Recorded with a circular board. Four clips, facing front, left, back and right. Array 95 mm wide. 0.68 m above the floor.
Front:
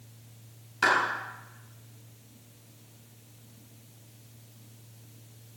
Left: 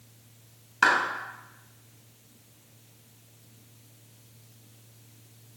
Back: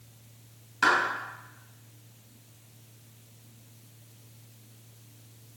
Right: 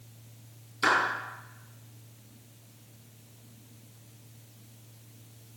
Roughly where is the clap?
Left.